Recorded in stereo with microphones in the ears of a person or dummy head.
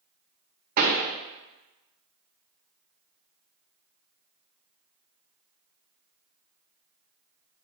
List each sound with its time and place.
0.8 s a pop: 45° right (ahead or behind), 1.2 m